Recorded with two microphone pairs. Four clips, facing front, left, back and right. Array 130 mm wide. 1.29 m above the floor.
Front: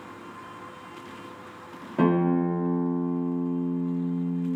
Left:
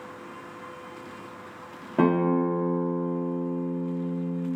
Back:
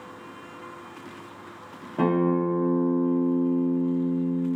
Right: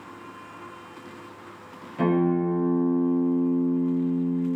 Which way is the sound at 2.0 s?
95° left.